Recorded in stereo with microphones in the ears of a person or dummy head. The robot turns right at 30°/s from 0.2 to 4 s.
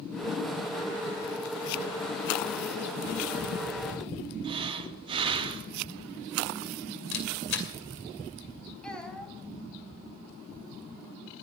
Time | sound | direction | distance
4.4 | breathing | 30° right (ahead or behind) | 2.5 m
7.1 | a camera shutter | 65° left (ahead or behind) | 2.5 m
8.8 | a child speaking | 5° left (ahead or behind) | 4.5 m